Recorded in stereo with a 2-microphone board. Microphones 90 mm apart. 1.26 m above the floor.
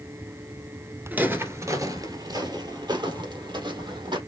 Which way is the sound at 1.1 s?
15° right (ahead or behind).